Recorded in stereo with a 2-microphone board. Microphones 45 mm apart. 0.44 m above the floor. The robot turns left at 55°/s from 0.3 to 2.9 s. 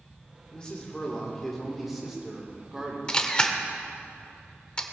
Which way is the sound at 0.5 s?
20° left (ahead or behind).